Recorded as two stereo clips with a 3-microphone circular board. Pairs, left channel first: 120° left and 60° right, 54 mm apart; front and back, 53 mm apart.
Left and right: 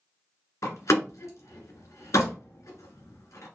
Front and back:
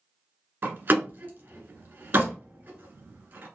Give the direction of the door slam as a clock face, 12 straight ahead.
7 o'clock.